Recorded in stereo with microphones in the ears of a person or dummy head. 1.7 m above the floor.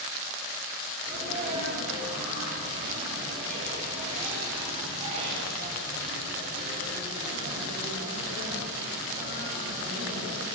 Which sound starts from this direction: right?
A sneeze, at 1.0 s.